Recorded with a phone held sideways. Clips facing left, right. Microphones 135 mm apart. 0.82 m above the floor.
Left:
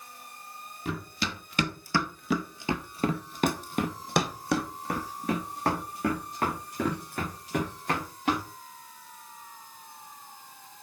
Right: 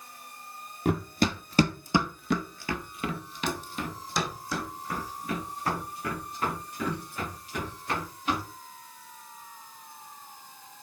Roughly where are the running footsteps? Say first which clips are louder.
Right 8 dB; right.